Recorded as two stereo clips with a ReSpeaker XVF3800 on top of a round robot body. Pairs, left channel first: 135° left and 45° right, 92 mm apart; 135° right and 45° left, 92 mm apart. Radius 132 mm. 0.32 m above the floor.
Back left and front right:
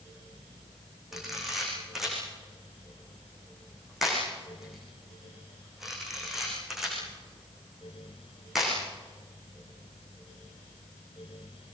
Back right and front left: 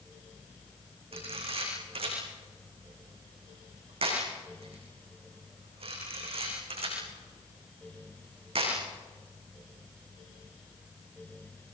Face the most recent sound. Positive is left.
turn(degrees=40)